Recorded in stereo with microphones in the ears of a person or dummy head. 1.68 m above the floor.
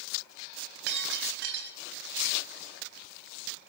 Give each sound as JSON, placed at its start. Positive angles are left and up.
{"t": 0.9, "sound": "breaking glass", "side_deg": -65, "distance_m": 4.0}